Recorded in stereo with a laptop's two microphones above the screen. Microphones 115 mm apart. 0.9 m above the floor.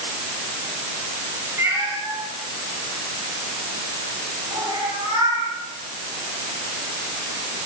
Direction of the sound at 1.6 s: 25° right (ahead or behind).